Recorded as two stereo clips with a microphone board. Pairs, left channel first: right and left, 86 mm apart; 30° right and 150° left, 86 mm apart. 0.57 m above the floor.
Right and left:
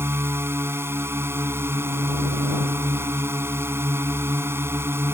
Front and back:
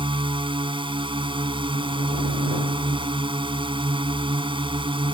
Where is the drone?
150° left.